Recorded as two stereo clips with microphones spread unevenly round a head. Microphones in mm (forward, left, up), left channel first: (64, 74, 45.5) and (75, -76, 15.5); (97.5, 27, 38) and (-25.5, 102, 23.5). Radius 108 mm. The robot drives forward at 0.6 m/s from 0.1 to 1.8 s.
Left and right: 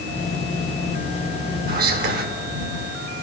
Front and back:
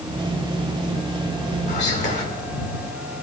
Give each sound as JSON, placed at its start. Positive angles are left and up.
{"t": 1.7, "sound": "whispering", "azimuth_deg": -85, "distance_m": 1.6}